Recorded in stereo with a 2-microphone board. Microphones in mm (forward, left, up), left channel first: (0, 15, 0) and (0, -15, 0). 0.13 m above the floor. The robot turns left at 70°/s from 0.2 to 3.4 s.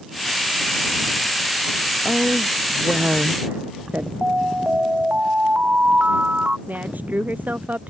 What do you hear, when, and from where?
2.0 s a woman speaking: 25° left; by 4.1 s 70° right
4.2 s an alarm: 55° right (ahead or behind)
6.7 s a woman speaking: 75° right (ahead or behind)